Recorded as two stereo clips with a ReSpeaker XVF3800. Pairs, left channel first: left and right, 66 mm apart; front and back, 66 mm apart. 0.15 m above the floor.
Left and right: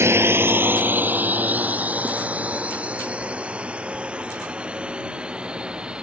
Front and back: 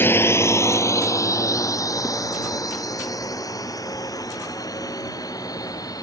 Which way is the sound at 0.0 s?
50° right.